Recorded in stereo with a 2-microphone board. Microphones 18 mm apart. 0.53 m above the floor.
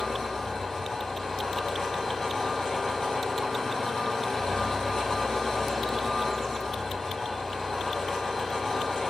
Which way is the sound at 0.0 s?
30° left (ahead or behind).